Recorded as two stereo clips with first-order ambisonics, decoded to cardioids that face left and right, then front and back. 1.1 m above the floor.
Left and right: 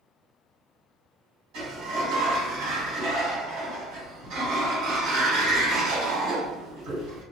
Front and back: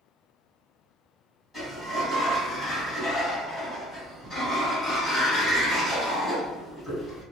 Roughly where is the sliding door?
Right.